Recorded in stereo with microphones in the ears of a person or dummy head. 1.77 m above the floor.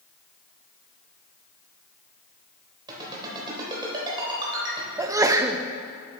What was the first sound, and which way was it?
A ringtone, 30° right (ahead or behind).